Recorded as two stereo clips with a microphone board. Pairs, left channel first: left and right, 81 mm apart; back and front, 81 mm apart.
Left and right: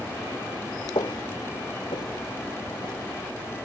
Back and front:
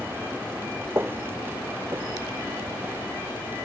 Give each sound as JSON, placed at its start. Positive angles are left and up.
{"t": 0.9, "sound": "footsteps", "azimuth_deg": 60}